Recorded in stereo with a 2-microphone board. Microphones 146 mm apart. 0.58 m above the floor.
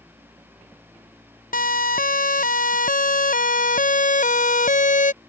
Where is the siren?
70° left (ahead or behind); by 5.1 s 60° left (ahead or behind).